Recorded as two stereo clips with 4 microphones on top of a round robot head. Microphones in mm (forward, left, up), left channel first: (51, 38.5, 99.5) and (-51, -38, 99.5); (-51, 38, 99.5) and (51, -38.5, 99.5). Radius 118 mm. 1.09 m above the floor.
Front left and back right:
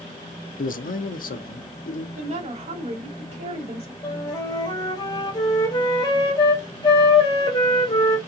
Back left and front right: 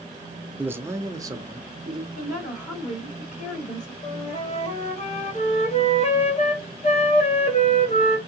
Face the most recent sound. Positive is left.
turn(degrees=100)